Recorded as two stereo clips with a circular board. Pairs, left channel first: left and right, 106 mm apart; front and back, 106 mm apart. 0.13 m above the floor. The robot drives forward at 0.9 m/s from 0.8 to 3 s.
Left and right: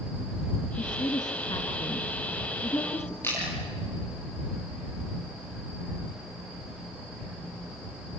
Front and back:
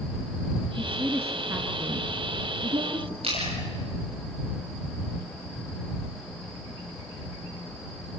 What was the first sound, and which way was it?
A woman speaking, 105° left.